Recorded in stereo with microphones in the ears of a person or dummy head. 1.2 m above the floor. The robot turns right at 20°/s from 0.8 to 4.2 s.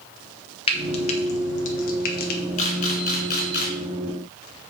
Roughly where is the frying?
Left.